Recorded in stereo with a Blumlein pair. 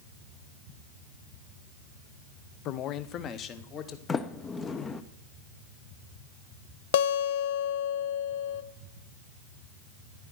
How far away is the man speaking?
About 0.8 m.